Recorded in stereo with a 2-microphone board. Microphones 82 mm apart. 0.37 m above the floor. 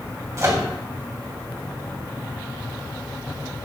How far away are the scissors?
I don't hear scissors.